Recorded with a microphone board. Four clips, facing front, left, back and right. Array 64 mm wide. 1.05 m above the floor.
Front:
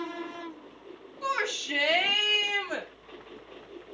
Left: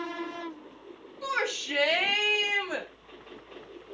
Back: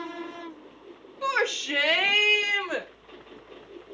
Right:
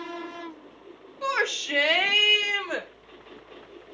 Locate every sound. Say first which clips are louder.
1.2 s a shout: right 4 dB, back 4 dB; 145° right, 2.5 m; by 2.9 s 140° right, 3.5 m